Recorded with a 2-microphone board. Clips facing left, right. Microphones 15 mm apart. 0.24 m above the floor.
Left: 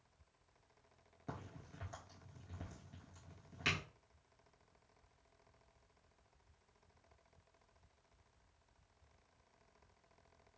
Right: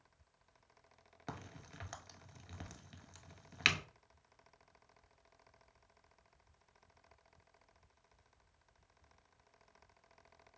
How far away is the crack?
About 0.6 m.